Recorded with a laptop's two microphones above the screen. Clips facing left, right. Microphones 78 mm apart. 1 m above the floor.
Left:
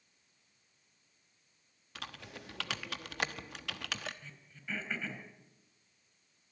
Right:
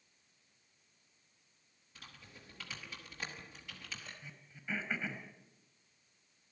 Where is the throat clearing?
10° right (ahead or behind), 4.5 m.